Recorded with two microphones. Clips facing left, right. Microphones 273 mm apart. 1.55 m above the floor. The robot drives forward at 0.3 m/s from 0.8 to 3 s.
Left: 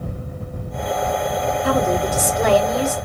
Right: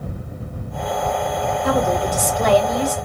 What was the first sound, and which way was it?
A woman speaking, 10° left (ahead or behind).